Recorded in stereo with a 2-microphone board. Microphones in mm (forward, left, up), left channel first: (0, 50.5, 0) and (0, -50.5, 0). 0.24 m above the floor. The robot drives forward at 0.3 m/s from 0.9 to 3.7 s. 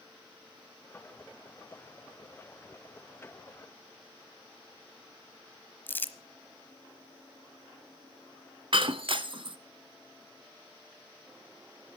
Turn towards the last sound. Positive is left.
turn(degrees=-60)  # may be behind; listen again after turning